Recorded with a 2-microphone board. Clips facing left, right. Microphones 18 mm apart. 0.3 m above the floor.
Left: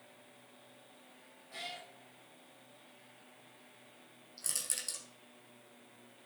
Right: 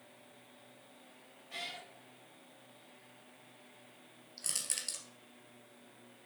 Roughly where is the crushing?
Centre.